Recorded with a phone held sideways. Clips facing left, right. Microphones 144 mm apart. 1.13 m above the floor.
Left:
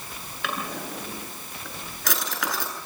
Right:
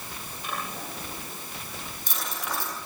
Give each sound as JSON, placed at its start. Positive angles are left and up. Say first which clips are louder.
{"t": 0.4, "sound": "a drawer", "louder": "left 4 dB", "side_deg": 80, "distance_m": 8.0}